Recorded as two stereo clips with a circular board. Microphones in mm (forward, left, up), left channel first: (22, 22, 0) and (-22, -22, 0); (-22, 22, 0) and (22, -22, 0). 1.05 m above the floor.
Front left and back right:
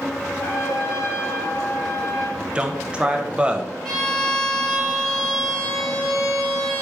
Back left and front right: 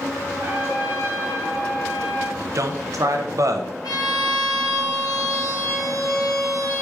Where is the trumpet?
15° left, 1.0 m.